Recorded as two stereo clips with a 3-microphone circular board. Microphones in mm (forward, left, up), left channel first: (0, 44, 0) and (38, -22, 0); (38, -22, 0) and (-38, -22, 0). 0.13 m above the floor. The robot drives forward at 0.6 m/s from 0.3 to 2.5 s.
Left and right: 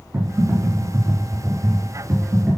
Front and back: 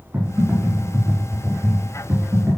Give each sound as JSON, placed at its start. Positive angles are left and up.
{"t": 0.1, "sound": "typing on a keyboard", "azimuth_deg": -115, "distance_m": 6.5}